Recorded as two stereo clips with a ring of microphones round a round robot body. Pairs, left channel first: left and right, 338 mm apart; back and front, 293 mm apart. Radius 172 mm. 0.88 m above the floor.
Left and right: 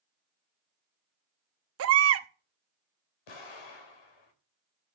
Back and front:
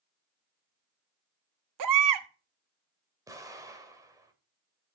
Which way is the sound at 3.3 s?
80° left.